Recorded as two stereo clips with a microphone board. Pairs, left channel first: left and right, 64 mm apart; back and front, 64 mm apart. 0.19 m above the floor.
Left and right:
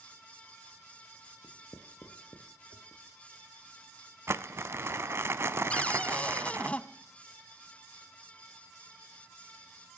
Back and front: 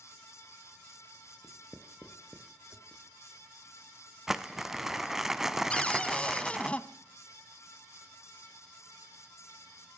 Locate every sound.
1.4 s writing: 75° left, 1.5 m
4.3 s crumpling: 80° right, 0.5 m
5.7 s a cupboard door: 135° left, 0.7 m